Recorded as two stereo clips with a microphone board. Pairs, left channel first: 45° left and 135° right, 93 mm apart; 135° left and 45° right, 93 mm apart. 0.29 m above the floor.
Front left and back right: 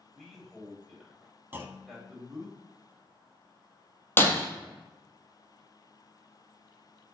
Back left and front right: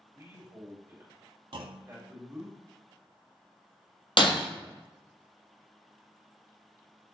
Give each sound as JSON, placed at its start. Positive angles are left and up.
{"t": 0.1, "sound": "a man speaking", "azimuth_deg": -45, "distance_m": 1.4}
{"t": 1.5, "sound": "a clunk", "azimuth_deg": -70, "distance_m": 0.5}
{"t": 4.2, "sound": "breaking glass", "azimuth_deg": 110, "distance_m": 1.0}